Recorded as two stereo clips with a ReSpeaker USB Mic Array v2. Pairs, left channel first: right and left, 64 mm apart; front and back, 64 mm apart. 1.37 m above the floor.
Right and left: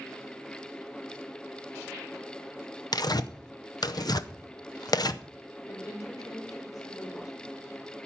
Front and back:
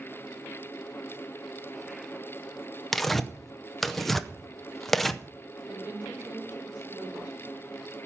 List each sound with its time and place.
2.9 s tearing paper: 85° right, 0.6 m
5.7 s a woman speaking: 115° right, 4.5 m